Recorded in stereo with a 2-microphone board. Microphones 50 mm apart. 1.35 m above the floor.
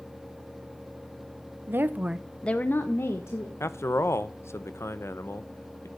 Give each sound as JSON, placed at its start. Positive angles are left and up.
{"t": 1.7, "sound": "a woman speaking", "side_deg": -50, "distance_m": 0.8}
{"t": 3.6, "sound": "a man speaking", "side_deg": 65, "distance_m": 0.8}